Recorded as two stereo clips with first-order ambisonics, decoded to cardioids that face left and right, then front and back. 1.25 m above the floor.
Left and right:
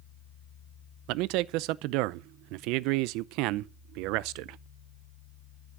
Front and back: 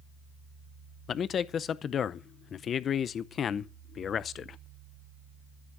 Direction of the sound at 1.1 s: 65° right.